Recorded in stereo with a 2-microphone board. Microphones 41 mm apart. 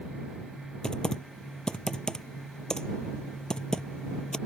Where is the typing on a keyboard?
20° left (ahead or behind).